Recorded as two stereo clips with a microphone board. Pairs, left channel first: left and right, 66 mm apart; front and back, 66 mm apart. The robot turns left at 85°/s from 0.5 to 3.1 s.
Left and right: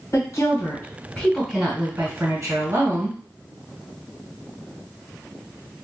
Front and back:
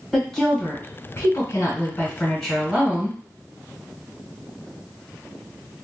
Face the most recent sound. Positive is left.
turn(degrees=-140)